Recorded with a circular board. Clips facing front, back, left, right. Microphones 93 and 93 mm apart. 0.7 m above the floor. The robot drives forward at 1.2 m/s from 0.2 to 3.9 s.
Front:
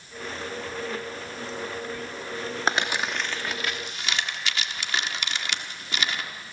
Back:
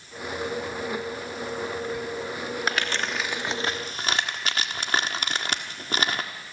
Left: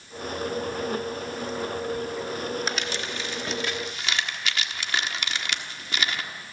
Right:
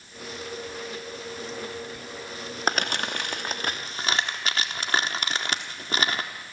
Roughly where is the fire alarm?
I don't hear a fire alarm.